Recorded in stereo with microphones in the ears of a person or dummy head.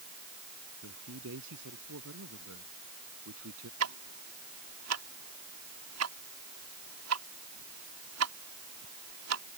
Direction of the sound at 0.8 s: 75° right (ahead or behind).